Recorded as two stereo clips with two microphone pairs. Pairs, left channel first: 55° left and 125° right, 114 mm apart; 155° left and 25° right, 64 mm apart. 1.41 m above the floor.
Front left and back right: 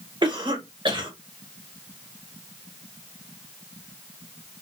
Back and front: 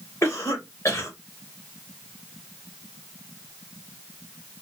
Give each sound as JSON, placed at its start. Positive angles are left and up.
{"t": 0.2, "sound": "a cough", "azimuth_deg": -170, "distance_m": 1.5}